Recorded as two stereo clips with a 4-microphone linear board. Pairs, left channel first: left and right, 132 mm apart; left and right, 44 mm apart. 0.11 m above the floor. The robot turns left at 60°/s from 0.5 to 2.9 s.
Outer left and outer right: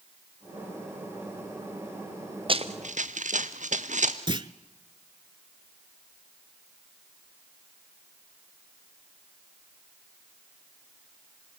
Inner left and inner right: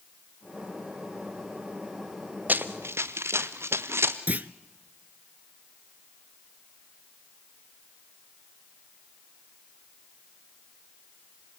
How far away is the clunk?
About 0.5 m.